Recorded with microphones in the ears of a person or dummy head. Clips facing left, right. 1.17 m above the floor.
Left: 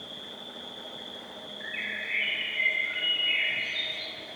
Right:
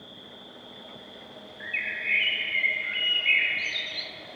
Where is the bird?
75° right (ahead or behind), 1.8 m.